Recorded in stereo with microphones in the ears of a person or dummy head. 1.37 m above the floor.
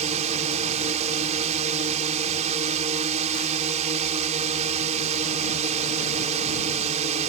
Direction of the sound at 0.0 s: 35° right (ahead or behind).